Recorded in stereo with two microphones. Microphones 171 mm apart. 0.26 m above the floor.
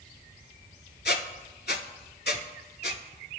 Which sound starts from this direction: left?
A squeak, at 1.1 s.